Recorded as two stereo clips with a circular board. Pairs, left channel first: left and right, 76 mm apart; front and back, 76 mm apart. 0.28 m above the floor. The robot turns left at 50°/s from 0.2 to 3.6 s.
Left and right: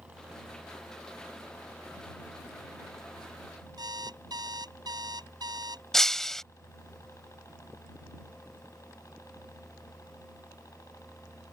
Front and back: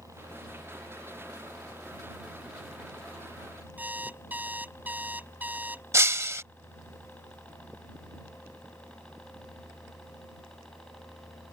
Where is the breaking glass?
170° left.